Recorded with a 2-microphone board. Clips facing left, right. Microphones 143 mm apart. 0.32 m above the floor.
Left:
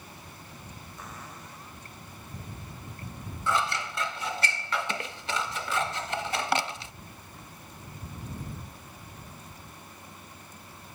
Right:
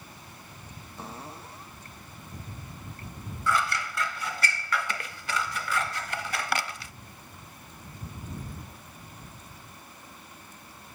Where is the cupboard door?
30° right (ahead or behind).